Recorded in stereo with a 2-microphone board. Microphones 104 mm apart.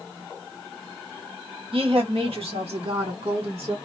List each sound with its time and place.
1.7 s a woman speaking: 60° right (ahead or behind), 1.2 m; by 3.8 s 70° right (ahead or behind), 2 m